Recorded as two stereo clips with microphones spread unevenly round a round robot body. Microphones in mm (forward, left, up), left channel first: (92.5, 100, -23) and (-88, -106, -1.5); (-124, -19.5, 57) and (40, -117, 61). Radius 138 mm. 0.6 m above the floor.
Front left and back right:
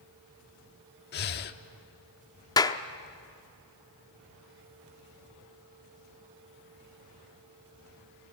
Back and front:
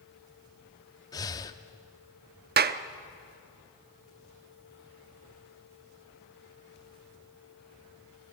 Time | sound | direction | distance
1.1 | breathing | 85° left | 0.7 m
2.6 | a clap | 20° right | 0.7 m